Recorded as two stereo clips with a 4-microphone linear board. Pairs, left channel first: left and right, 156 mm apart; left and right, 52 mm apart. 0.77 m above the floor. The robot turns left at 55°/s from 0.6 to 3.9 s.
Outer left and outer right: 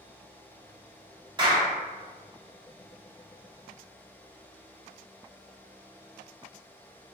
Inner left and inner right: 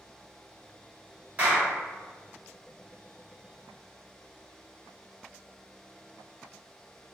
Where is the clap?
30° right (ahead or behind), 1.0 m; by 1.7 s 50° right (ahead or behind), 1.0 m.